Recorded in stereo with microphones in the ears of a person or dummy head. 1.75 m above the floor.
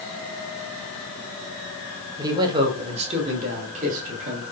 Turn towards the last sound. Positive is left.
turn(degrees=-40)  # may be behind; listen again after turning